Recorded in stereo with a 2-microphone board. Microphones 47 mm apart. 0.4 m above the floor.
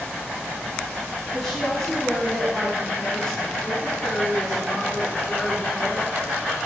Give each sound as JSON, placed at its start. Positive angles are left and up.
{"t": 1.3, "sound": "a woman speaking", "side_deg": 5, "distance_m": 3.0}